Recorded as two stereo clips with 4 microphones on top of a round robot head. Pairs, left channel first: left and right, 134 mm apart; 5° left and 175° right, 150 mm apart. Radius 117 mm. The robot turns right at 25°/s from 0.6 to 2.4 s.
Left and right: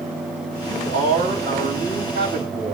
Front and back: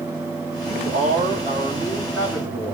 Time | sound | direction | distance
0.6 | a man speaking | 135° right | 4.5 m